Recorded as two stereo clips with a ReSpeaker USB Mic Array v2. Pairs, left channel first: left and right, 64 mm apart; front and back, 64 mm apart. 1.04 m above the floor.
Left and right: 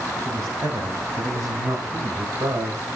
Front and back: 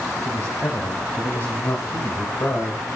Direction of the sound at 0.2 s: 50° right.